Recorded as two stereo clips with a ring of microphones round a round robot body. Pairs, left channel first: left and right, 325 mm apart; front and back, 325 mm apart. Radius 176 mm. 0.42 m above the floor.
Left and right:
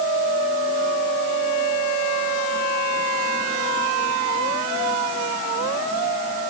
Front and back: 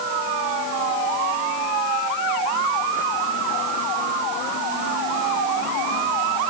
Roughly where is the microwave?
I don't hear a microwave.